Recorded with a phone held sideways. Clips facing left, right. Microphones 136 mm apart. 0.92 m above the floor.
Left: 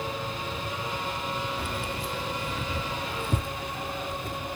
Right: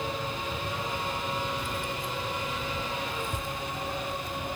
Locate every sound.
1.6 s keys jangling: 65° left (ahead or behind); by 4.4 s 50° left (ahead or behind)